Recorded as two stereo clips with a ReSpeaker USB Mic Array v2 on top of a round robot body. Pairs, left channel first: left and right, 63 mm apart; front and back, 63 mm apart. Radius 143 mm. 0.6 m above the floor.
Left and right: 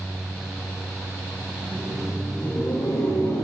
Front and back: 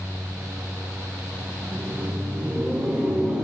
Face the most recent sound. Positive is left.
turn(degrees=120)